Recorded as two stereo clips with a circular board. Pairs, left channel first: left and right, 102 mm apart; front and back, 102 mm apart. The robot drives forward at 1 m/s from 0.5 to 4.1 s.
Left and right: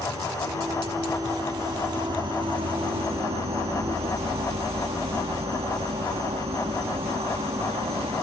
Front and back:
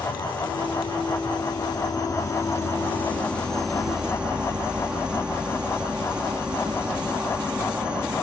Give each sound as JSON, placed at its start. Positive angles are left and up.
{"t": 0.0, "sound": "an insect", "azimuth_deg": -30}